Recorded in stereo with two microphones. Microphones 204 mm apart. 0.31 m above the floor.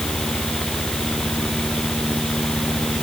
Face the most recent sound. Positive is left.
No sound to turn to.